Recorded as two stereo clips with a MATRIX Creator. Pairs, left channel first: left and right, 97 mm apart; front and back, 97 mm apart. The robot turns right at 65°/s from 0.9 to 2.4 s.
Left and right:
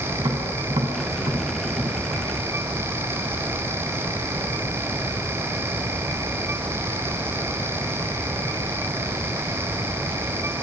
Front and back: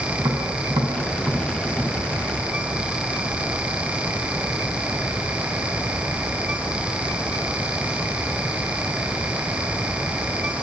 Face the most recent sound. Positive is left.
turn(degrees=-35)